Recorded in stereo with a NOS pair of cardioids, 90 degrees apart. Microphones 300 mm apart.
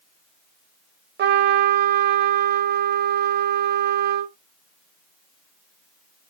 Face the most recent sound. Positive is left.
turn(degrees=-35)